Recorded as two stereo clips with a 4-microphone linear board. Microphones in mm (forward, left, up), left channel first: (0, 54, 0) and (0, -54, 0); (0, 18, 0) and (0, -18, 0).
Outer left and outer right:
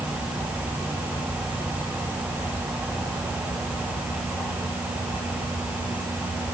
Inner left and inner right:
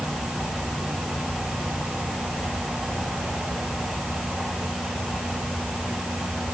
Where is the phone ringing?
No phone ringing in this recording.